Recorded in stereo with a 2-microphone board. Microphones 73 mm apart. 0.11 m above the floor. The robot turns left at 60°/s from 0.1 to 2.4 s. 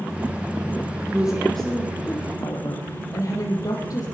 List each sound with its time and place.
1.1 s a woman speaking: 160° right, 4 m; by 4.0 s 125° left, 4 m